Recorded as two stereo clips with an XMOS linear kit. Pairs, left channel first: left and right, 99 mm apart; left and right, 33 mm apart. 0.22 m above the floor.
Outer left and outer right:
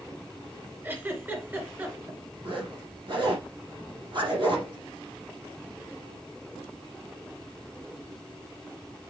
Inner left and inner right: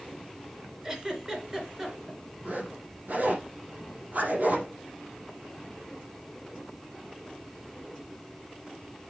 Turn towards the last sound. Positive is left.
turn(degrees=-55)  # may be behind; listen again after turning